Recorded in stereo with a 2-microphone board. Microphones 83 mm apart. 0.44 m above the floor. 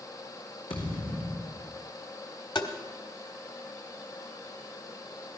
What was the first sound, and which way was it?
A thud, 85° left.